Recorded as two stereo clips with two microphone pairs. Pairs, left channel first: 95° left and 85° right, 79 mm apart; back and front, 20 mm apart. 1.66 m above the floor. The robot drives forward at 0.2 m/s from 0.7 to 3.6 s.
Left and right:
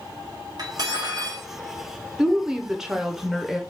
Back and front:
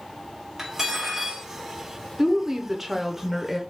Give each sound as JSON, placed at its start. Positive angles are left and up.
{"t": 0.6, "sound": "cutlery clinking", "azimuth_deg": -65, "distance_m": 1.5}
{"t": 2.2, "sound": "a woman speaking", "azimuth_deg": -15, "distance_m": 0.6}